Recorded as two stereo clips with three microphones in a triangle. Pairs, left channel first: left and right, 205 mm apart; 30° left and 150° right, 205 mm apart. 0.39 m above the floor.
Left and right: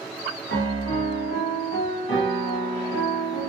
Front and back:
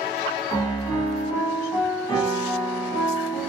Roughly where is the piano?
Left.